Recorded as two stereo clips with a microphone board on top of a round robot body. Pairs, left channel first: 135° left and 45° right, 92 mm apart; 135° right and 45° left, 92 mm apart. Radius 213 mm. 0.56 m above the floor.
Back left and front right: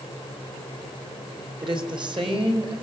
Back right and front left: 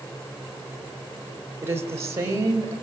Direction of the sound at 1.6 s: 15° right.